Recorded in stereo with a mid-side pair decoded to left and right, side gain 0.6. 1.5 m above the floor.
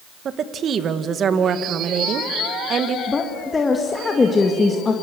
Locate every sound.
0.2 s a woman speaking: 45° right, 1.9 m
3.1 s a woman speaking: 25° left, 2 m